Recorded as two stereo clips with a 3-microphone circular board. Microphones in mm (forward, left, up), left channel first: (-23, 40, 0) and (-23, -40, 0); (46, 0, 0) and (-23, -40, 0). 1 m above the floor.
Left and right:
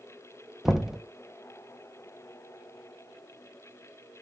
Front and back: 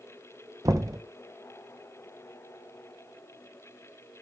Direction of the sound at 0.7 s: 175° right.